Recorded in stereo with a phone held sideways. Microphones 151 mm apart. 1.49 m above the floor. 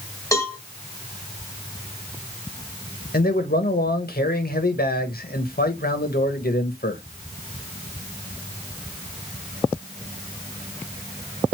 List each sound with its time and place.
0.3 s a cowbell: 20° left (ahead or behind), 1.9 m
3.1 s a man speaking: 70° left (ahead or behind), 1.3 m